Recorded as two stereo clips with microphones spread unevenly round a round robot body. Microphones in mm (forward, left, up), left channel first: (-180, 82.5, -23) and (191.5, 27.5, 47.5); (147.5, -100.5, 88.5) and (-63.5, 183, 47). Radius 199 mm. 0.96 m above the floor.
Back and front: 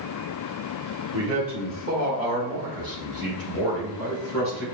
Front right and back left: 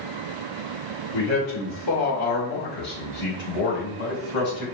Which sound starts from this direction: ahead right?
A man speaking, at 1.1 s.